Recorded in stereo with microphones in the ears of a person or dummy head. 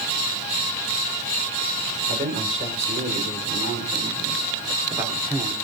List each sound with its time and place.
2.1 s a man speaking: 45° right (ahead or behind), 4 m; by 5.5 s 10° right (ahead or behind), 3 m